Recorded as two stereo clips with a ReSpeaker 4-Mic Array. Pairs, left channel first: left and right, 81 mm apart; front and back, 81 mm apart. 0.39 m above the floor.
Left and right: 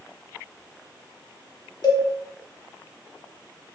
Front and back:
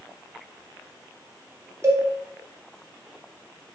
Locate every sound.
1.8 s a cowbell: 130° left, 0.6 m